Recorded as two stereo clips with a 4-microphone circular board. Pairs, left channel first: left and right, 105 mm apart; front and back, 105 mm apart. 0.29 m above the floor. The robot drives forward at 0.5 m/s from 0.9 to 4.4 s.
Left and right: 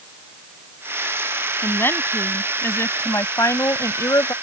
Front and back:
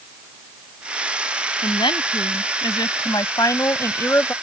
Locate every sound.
1.6 s a woman speaking: 25° left; by 4.3 s 60° left